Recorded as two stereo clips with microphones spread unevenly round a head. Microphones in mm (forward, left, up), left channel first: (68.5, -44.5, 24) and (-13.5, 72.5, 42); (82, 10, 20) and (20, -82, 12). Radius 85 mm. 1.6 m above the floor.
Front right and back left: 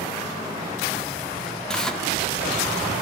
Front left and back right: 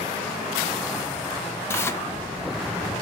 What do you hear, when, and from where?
1.7 s tearing paper: 45° left, 0.8 m